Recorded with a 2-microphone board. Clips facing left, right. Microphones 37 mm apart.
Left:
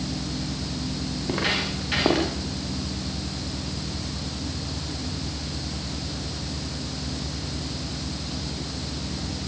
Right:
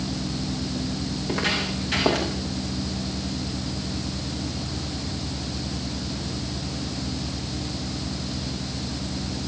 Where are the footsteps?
10° left (ahead or behind), 9 m; by 2.3 s 5° left (ahead or behind), 8 m.